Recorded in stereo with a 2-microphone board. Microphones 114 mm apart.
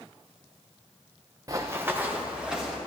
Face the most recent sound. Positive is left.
turn(degrees=-5)  # may be behind; listen again after turning